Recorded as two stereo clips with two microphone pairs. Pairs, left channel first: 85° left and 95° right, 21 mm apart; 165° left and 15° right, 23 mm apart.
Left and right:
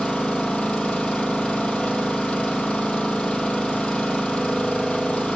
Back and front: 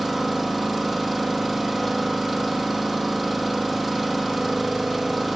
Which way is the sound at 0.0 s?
85° left.